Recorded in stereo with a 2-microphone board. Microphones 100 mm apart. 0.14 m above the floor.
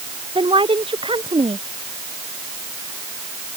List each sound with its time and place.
0.3 s a woman speaking: 60° right (ahead or behind)